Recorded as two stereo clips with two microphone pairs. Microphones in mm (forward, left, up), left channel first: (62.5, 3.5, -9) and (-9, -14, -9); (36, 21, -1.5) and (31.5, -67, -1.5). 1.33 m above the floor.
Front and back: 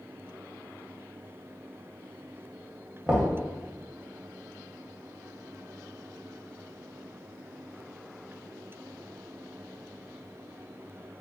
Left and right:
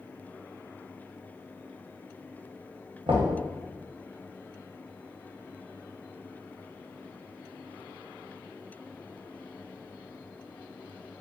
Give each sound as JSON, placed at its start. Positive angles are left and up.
{"t": 3.1, "sound": "knocking", "azimuth_deg": -90, "distance_m": 0.8}